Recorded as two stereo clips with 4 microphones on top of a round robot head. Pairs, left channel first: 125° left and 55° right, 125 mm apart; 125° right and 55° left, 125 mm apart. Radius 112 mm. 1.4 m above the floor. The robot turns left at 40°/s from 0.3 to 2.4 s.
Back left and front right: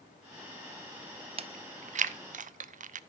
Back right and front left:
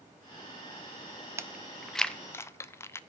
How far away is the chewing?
About 0.6 m.